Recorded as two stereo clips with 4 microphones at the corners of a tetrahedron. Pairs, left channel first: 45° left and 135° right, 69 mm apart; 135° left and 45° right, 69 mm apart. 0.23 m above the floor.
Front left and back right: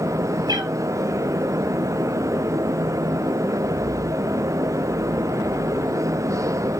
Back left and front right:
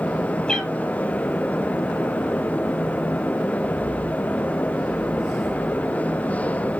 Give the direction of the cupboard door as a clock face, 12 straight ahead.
I don't hear a cupboard door.